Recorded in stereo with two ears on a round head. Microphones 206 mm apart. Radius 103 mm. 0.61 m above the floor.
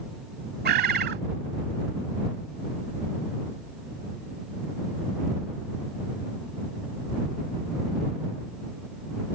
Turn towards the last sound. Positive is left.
turn(degrees=-45)  # may be behind; listen again after turning